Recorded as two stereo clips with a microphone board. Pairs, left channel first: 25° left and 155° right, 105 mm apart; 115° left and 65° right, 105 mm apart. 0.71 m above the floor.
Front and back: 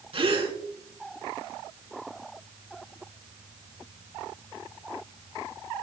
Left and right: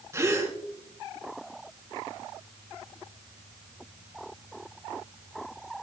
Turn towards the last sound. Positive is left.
turn(degrees=-130)